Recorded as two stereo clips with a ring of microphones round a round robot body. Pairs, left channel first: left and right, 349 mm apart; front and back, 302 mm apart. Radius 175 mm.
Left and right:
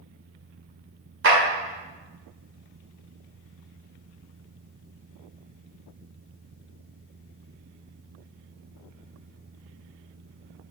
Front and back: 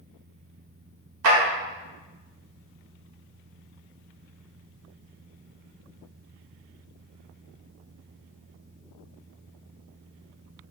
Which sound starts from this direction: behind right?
A clap, at 1.2 s.